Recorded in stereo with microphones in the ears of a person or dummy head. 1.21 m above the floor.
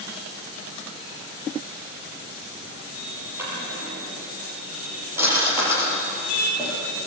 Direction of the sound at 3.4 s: 10° right (ahead or behind).